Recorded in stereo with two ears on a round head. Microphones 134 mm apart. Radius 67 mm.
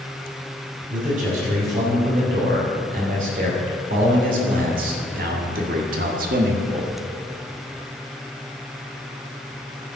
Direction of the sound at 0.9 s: 55° right (ahead or behind).